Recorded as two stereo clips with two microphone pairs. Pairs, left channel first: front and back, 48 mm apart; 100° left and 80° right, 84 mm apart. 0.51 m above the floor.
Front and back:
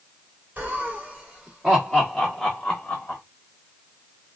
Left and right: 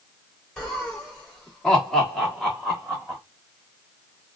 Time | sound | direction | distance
0.6 | laughter | 170° left | 1.5 m